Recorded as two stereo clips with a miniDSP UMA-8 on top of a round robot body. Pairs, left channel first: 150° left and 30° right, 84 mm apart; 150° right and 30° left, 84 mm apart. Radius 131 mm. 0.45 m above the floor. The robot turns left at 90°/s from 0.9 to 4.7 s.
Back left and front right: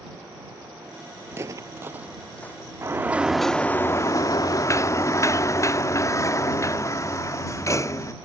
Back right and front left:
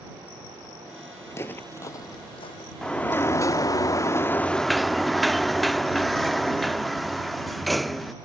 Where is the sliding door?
70° right; by 8.1 s 120° left.